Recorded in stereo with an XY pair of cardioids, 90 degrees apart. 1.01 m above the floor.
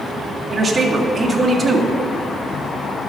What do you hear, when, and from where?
0.5 s a man speaking: 35° right, 1.9 m